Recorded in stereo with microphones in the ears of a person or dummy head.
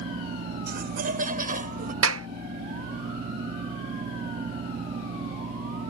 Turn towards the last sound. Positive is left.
turn(degrees=-75)  # may be behind; listen again after turning